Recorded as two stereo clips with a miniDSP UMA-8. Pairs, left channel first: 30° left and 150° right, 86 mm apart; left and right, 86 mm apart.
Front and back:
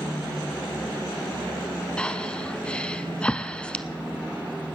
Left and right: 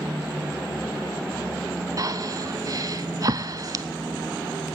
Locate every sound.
2.0 s breathing: 50° right, 0.5 m